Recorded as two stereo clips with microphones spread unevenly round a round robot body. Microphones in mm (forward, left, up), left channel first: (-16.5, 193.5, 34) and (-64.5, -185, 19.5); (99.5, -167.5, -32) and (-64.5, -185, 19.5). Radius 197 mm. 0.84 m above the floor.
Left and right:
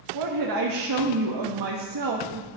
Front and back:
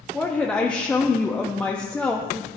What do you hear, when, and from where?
0.1 s a woman speaking: 70° right, 1.1 m